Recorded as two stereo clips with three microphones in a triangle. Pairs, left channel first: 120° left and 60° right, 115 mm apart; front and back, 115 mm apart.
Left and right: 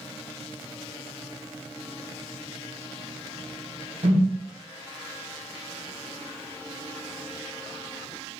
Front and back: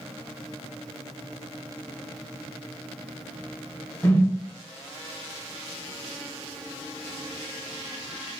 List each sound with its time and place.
4.0 s a whoosh: 70° right, 1.9 m